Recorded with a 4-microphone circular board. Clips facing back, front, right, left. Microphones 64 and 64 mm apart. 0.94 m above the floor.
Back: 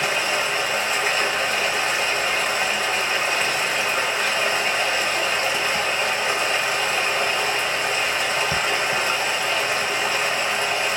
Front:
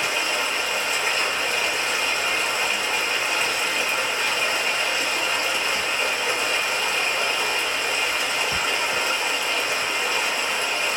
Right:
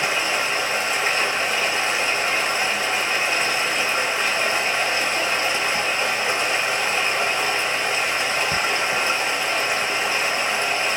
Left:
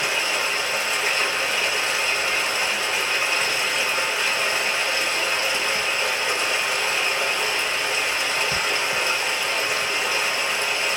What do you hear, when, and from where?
0.0 s running water: 150° right, 1.3 m